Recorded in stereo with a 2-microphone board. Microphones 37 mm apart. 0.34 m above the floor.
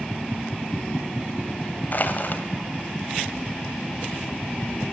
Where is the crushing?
50° left (ahead or behind), 1.7 m.